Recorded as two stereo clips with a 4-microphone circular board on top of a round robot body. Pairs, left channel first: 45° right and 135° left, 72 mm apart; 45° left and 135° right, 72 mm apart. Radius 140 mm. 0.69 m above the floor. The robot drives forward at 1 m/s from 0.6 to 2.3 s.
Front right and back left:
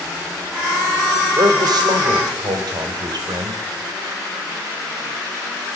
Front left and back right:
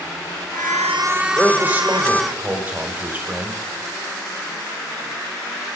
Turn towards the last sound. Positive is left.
turn(degrees=160)